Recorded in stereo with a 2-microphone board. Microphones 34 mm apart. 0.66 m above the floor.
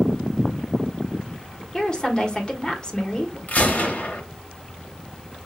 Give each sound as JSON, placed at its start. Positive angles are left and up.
{"t": 1.7, "sound": "a woman speaking", "side_deg": 25, "distance_m": 1.4}
{"t": 3.5, "sound": "a gunshot", "side_deg": 55, "distance_m": 1.6}